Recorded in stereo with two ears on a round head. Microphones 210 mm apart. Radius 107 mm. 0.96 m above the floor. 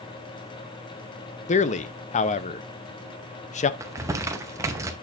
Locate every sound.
1.5 s a man speaking: 30° left (ahead or behind), 0.7 m
3.8 s crumpling: 15° right (ahead or behind), 0.8 m